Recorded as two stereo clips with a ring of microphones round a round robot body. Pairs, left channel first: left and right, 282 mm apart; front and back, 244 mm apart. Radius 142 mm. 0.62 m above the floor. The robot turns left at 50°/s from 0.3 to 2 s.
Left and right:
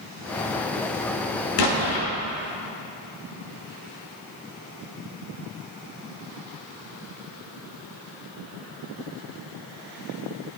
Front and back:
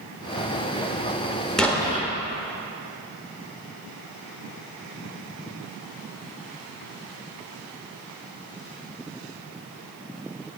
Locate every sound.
1.6 s an explosion: 90° left, 0.9 m; by 2.1 s 65° left, 0.9 m